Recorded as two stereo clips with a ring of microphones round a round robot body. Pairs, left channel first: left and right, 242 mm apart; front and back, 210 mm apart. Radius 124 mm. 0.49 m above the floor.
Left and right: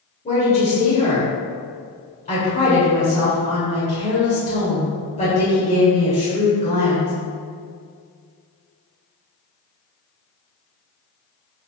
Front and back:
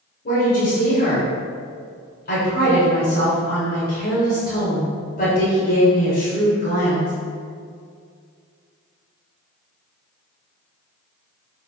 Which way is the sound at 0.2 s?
35° left.